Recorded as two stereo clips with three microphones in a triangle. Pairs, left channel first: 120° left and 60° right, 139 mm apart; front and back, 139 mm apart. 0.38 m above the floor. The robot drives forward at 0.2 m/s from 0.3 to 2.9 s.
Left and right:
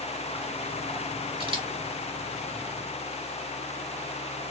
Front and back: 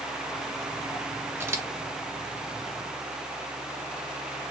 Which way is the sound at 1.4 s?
105° right.